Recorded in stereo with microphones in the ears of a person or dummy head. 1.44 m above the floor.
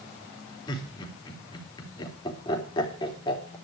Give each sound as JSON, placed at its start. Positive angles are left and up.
{"t": 0.7, "sound": "laughter", "side_deg": 25, "distance_m": 4.0}